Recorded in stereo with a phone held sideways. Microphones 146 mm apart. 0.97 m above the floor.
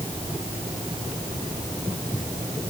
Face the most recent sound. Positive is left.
No sound to turn to.